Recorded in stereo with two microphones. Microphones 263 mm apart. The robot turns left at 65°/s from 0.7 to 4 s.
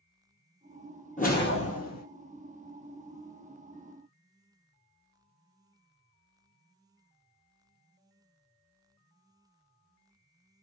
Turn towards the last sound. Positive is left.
turn(degrees=-35)